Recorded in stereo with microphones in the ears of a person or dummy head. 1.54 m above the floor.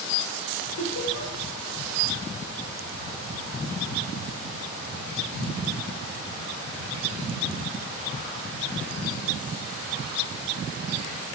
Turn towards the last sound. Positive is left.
turn(degrees=75)  # may be behind; listen again after turning